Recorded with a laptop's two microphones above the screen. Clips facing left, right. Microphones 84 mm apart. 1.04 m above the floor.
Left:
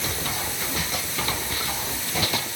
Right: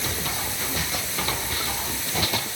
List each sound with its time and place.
Only background noise.